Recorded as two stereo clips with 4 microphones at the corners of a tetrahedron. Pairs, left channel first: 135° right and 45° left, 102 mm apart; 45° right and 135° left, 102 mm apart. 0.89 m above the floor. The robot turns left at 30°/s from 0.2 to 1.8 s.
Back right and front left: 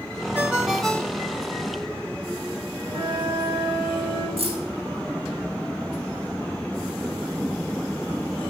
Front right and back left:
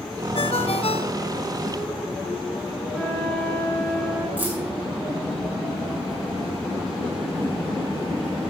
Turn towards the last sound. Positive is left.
turn(degrees=60)